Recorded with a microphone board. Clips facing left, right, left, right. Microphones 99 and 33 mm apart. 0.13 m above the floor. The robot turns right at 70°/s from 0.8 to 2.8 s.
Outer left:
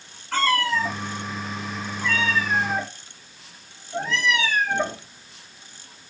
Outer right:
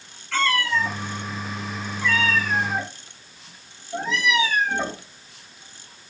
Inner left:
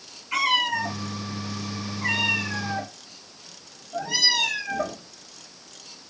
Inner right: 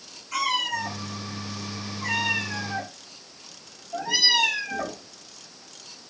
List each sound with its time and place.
0.3 s a cat meowing: 40° left (ahead or behind), 1.2 m; by 5.0 s 10° right (ahead or behind), 1.2 m